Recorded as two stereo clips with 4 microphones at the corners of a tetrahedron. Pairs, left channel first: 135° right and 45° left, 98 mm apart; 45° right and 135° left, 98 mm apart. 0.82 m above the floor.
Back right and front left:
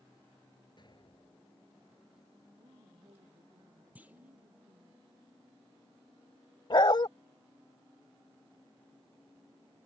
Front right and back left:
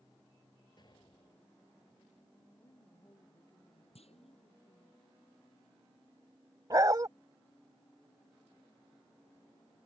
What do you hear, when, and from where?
0.8 s an explosion: 90° right
2.6 s a woman speaking: 15° left
4.0 s a clunk: 30° right
6.7 s a dog barking: 170° right